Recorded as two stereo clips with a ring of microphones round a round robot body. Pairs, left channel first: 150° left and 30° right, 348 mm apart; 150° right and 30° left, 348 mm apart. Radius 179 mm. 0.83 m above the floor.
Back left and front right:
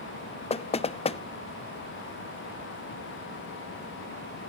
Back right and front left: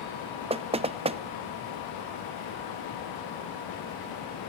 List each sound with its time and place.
0.5 s knocking: 90° left, 0.6 m